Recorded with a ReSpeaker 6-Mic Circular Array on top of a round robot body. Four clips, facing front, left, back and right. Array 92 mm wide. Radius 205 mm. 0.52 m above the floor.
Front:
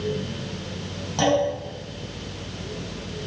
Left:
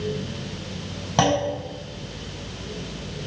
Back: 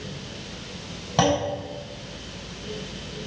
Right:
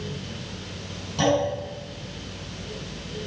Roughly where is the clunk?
Left.